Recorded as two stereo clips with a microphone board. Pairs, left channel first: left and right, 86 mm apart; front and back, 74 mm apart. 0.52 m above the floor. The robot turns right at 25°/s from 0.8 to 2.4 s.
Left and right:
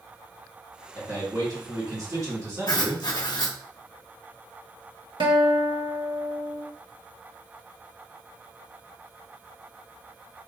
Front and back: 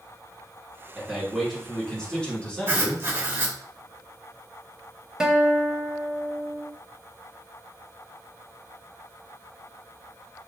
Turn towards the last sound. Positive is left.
turn(degrees=-100)